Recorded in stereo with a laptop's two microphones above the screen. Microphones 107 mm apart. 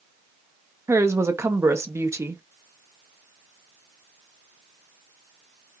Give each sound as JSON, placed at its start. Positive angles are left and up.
{"t": 0.9, "sound": "a woman speaking", "side_deg": -25, "distance_m": 0.9}